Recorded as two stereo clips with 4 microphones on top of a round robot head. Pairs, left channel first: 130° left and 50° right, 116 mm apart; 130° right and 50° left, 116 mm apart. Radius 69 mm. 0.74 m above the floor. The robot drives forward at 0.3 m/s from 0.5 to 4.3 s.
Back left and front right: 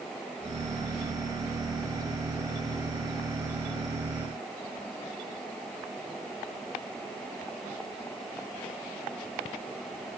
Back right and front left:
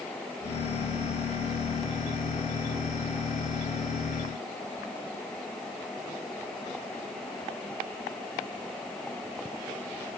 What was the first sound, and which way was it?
Only background noise.